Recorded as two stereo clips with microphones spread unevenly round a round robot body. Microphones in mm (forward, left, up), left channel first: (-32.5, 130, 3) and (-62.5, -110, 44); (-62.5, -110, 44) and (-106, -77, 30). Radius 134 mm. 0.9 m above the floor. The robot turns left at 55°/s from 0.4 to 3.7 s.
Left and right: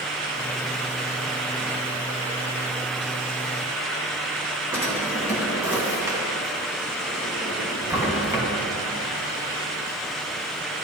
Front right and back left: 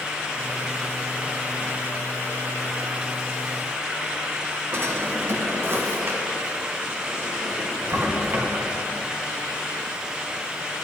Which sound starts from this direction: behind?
A drawer, at 4.7 s.